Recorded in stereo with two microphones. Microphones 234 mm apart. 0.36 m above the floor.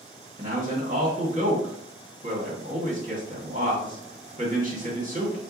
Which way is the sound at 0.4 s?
35° right (ahead or behind).